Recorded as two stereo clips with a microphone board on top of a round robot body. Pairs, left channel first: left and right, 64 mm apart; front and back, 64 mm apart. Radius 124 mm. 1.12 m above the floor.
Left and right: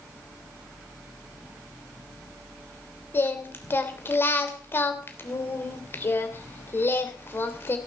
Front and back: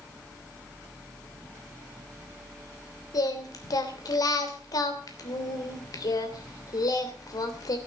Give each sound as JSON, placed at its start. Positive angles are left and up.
{"t": 3.1, "sound": "singing", "azimuth_deg": 35, "distance_m": 3.0}